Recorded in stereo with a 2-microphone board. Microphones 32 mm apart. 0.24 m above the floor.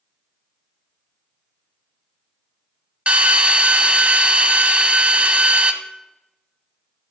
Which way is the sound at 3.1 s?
45° right (ahead or behind).